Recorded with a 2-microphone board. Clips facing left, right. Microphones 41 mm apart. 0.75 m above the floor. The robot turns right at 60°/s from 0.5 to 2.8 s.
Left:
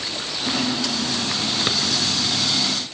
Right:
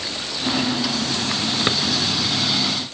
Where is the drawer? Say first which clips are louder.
Right 3 dB; 20° right (ahead or behind), 1.1 m; by 1.8 s 10° right (ahead or behind), 1.1 m.